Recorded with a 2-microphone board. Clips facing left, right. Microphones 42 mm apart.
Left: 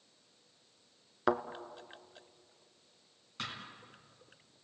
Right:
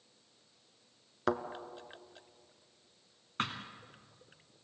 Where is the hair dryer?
No hair dryer in this recording.